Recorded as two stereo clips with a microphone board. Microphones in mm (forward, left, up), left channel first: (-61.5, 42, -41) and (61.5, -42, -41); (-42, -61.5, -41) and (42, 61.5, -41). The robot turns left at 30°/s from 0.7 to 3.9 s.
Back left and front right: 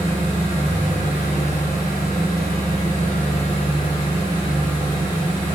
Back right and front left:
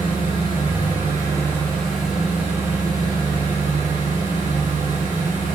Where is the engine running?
175° right, 2.5 m; by 5.6 s 90° left, 2.5 m.